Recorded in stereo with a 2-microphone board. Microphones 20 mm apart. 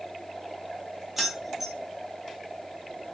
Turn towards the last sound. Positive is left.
turn(degrees=-15)  # may be behind; listen again after turning